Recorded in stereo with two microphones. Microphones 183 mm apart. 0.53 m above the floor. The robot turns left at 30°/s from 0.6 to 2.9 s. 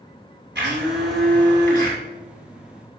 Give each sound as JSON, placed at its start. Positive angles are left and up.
{"t": 0.6, "sound": "a blender", "azimuth_deg": -75, "distance_m": 5.5}